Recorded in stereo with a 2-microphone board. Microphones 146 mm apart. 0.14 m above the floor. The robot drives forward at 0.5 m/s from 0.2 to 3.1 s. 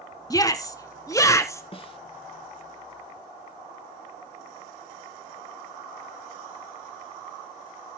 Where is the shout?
25° left (ahead or behind), 1.1 m; by 1.6 s 20° left (ahead or behind), 1.3 m.